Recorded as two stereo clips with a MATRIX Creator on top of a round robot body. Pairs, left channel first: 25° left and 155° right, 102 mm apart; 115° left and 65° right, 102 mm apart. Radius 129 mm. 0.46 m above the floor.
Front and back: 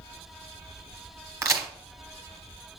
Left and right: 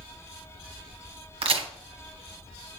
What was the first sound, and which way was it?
A crack, 95° right.